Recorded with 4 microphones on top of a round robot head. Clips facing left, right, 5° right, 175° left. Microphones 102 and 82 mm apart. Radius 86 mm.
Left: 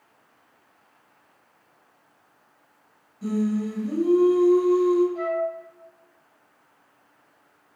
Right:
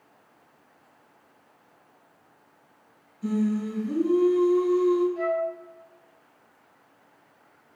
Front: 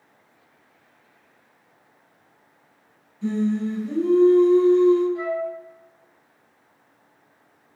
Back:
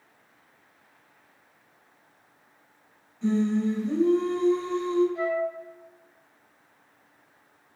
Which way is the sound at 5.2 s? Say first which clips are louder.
Even, front 1 dB; 55° left.